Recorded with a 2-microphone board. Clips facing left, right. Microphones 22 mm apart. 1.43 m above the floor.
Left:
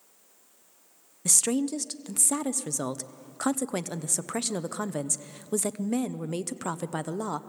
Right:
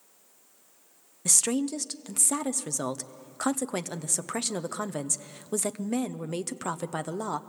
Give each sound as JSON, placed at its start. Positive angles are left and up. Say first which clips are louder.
{"t": 1.2, "sound": "a woman speaking", "louder": "even", "side_deg": 0, "distance_m": 0.7}